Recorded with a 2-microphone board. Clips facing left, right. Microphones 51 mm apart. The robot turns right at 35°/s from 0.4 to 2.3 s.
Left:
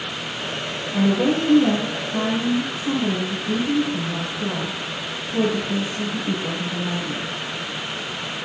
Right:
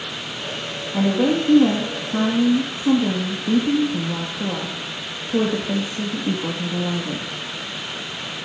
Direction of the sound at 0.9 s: 165° right.